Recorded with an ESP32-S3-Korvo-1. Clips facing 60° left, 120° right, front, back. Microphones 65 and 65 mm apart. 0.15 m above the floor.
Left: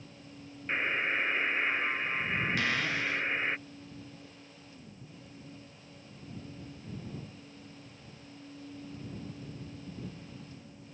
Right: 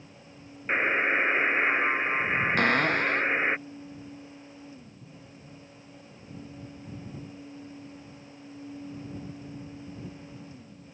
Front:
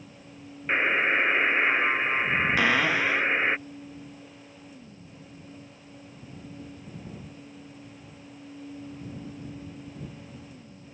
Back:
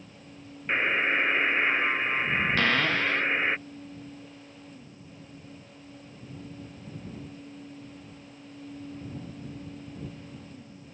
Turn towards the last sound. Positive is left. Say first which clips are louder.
# right 8 dB, front 2 dB
turn(degrees=-80)